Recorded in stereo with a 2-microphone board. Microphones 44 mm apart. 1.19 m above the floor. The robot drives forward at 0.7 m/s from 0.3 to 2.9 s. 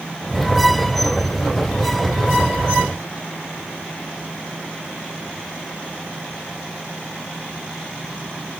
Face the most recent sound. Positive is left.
No sound to turn to.